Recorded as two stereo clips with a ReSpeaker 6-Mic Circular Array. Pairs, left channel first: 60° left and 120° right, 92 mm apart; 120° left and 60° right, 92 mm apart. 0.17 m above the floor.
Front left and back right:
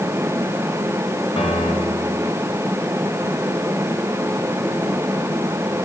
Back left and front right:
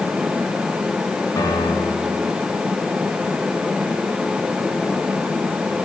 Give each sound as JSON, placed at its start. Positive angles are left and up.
{"t": 1.4, "sound": "a piano", "azimuth_deg": 70, "distance_m": 8.0}